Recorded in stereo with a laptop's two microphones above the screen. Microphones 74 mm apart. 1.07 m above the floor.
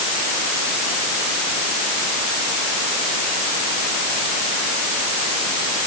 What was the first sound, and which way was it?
Only background noise.